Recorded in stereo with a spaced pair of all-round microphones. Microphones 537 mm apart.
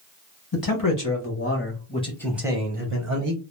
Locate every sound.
0.5 s a man speaking: 40° left (ahead or behind), 1.4 m; by 3.4 s 40° right (ahead or behind), 0.9 m